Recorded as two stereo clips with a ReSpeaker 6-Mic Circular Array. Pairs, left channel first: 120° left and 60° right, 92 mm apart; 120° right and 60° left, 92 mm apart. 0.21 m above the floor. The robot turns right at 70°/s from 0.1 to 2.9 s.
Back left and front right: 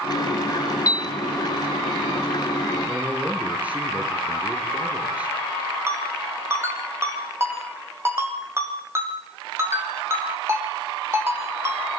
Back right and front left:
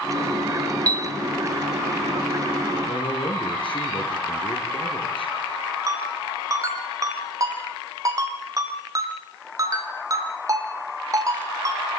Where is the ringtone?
5° left, 4.5 m.